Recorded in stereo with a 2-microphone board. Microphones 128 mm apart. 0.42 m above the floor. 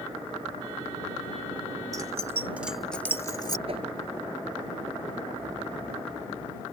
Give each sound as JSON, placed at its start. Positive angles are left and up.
{"t": 1.9, "sound": "keys jangling", "side_deg": -30}
{"t": 3.7, "sound": "a whoosh", "side_deg": -50}